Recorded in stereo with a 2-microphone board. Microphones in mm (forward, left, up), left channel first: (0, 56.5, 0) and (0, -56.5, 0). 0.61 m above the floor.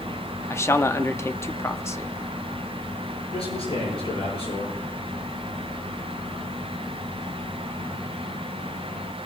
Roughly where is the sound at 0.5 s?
Left.